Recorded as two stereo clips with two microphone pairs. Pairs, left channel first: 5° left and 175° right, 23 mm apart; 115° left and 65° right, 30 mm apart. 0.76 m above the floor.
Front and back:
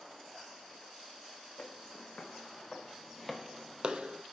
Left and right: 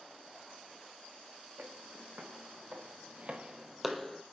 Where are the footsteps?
40° right, 3 m; by 4.2 s 165° right, 1.5 m.